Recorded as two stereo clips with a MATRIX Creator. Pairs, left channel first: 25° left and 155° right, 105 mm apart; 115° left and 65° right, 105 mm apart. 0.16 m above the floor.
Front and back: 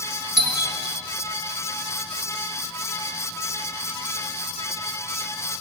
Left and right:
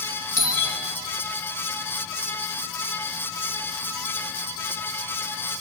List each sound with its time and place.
0.4 s a doorbell: 160° left, 3.5 m